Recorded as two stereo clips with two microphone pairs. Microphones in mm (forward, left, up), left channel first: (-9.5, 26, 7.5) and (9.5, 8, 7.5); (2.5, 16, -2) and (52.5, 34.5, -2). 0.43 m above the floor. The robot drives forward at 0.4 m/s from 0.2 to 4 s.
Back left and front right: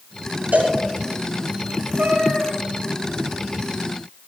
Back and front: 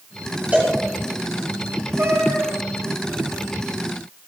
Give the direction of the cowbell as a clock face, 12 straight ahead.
1 o'clock.